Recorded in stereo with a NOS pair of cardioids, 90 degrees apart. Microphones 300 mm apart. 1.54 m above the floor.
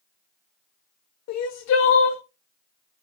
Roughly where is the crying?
Ahead left.